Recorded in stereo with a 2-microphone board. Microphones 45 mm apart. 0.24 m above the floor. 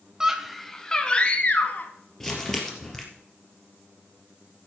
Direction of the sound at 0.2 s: 15° right (ahead or behind).